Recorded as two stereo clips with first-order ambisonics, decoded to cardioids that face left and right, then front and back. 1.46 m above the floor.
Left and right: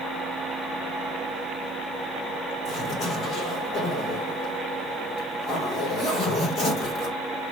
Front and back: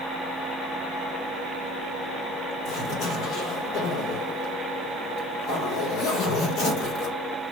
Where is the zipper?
35° left, 2.0 m.